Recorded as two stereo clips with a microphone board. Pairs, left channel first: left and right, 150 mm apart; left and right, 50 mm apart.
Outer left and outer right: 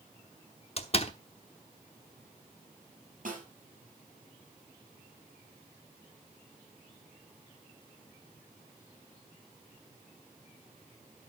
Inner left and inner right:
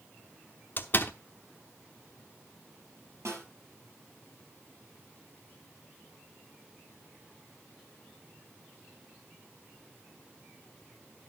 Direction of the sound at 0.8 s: 40° left (ahead or behind).